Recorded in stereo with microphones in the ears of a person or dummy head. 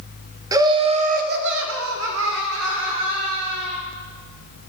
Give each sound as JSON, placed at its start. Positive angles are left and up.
{"t": 0.5, "sound": "laughter", "side_deg": -15, "distance_m": 1.6}